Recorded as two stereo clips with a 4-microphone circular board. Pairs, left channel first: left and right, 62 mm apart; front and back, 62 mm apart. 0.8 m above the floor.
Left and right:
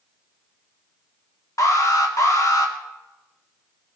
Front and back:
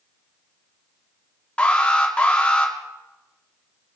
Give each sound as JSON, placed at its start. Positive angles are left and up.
{"t": 1.6, "sound": "an alarm", "azimuth_deg": 70, "distance_m": 2.0}